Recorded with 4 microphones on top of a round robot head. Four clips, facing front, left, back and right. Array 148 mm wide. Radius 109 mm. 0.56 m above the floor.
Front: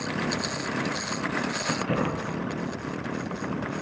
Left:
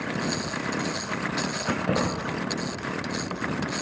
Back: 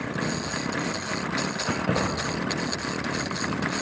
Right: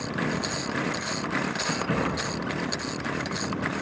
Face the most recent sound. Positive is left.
turn(degrees=135)